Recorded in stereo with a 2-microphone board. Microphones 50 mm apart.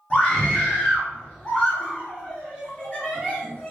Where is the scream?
30° left (ahead or behind), 1.4 m.